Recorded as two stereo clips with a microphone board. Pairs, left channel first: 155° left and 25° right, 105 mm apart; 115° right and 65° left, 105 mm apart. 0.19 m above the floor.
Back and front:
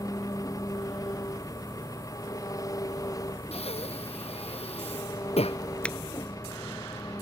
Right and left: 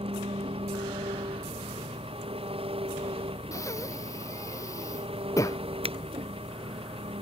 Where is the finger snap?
80° left.